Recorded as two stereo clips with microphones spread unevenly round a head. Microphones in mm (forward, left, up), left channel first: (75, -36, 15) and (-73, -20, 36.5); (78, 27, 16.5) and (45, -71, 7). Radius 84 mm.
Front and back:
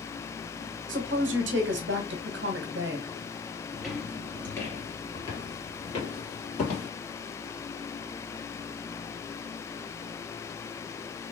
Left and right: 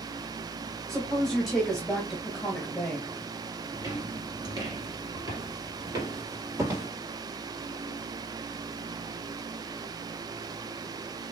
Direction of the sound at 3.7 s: 115° right.